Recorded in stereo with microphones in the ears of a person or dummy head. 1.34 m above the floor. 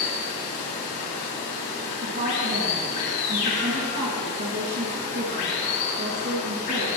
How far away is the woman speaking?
About 2.0 m.